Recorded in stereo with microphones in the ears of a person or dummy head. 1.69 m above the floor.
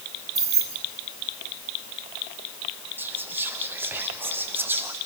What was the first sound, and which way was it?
Keys jangling, 15° right (ahead or behind).